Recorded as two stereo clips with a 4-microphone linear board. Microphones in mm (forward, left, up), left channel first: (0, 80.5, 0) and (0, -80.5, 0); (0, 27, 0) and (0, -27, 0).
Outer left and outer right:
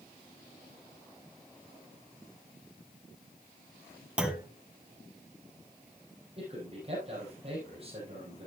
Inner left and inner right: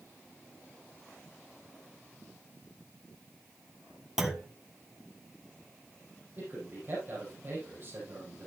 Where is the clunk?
5° right (ahead or behind), 1.3 m.